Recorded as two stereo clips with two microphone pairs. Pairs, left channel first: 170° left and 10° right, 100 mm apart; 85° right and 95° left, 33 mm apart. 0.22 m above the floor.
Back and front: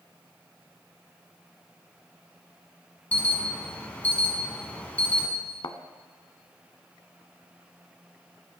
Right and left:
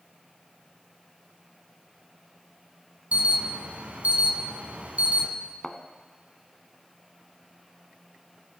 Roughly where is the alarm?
Left.